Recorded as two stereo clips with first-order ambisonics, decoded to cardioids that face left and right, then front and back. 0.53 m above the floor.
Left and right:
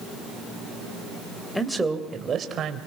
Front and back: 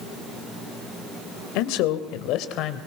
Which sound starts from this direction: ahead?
A man speaking, at 1.6 s.